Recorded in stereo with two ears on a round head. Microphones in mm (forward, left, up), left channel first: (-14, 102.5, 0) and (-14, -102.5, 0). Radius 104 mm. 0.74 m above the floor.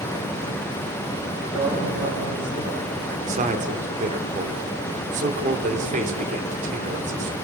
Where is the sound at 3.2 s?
30° right (ahead or behind), 2.5 m.